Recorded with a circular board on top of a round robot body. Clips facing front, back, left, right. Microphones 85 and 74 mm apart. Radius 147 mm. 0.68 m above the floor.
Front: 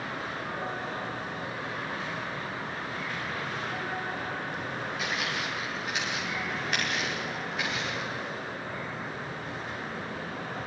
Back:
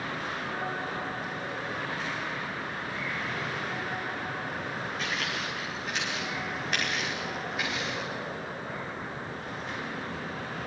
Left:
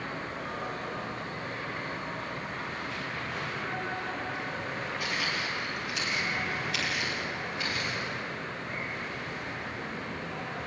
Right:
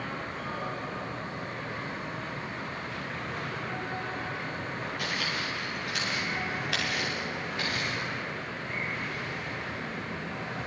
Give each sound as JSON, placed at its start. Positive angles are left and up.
{"t": 5.0, "sound": "footsteps", "azimuth_deg": -80, "distance_m": 9.5}